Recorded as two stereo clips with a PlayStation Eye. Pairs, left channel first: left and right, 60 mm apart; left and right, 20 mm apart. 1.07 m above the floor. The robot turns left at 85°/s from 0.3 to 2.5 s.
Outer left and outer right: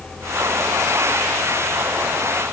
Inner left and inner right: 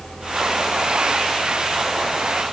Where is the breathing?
No breathing in this recording.